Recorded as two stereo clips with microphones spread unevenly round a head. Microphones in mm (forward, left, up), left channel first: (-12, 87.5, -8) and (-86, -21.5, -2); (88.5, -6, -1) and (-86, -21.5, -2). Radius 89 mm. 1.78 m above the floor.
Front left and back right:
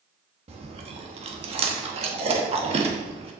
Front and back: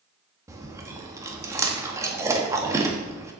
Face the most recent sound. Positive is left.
turn(degrees=-105)